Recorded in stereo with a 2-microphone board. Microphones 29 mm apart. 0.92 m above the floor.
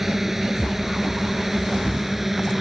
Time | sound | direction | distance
0.0 | a drone | 15° right (ahead or behind) | ?